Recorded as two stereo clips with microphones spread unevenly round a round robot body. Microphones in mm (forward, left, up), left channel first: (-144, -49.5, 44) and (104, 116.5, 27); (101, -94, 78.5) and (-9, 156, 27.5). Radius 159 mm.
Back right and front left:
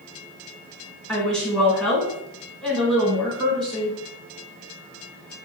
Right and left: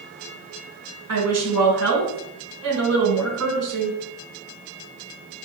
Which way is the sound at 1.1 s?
125° left.